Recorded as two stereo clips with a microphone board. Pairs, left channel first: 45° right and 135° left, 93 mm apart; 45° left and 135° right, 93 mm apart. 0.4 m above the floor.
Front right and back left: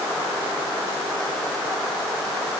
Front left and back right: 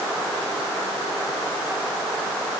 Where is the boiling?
No boiling in this recording.